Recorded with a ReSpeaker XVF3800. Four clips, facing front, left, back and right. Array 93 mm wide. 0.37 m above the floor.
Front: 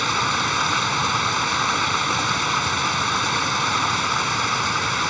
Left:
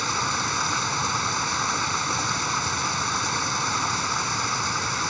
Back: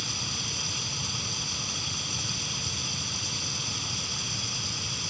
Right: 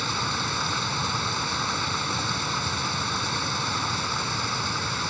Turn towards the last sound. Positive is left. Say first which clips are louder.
# left 2 dB, front 17 dB
turn(degrees=10)